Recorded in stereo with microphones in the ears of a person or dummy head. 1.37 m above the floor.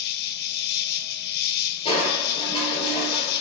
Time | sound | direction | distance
0.0 | an insect | 65° left (ahead or behind) | 1.0 m
1.9 | crushing | 30° left (ahead or behind) | 3.5 m